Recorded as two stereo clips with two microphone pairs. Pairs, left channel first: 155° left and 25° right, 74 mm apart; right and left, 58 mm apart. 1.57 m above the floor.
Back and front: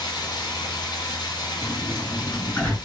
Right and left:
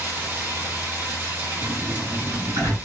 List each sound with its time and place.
0.0 s running water: 145° left, 2.5 m
1.6 s a sliding door: 85° left, 3.5 m